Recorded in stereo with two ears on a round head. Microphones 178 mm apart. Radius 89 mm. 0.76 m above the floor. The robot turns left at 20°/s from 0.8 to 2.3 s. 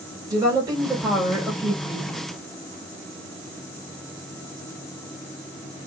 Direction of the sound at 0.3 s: 20° right (ahead or behind).